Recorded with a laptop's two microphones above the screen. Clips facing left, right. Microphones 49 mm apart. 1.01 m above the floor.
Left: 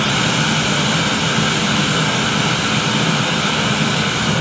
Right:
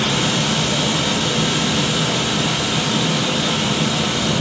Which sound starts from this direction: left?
A machine running, at 0.0 s.